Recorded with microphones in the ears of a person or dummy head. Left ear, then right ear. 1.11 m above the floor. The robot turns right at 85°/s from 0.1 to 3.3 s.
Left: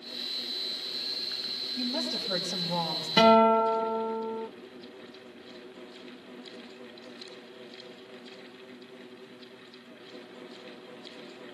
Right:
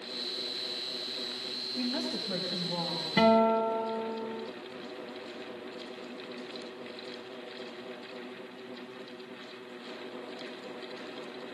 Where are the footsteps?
No footsteps in this recording.